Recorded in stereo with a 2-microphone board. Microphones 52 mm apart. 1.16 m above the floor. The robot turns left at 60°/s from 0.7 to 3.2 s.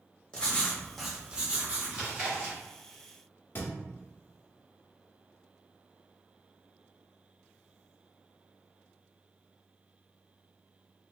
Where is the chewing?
15° right, 1.4 m; by 2.6 s 55° right, 1.4 m.